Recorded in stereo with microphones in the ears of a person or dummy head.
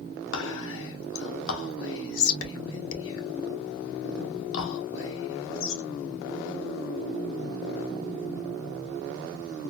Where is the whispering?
65° left (ahead or behind), 1.3 m.